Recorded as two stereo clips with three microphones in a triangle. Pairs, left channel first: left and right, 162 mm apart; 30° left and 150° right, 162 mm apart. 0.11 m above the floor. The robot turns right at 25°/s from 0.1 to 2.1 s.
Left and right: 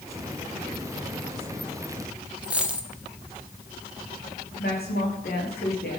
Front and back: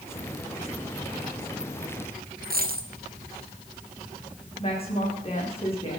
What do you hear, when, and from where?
2.4 s a dropped coin: 175° right, 1.4 m
4.6 s a woman speaking: 80° left, 6 m